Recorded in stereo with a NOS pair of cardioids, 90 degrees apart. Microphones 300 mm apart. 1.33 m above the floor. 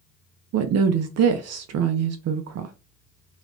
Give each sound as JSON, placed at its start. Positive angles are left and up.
{"t": 0.5, "sound": "a woman speaking", "azimuth_deg": -60, "distance_m": 0.5}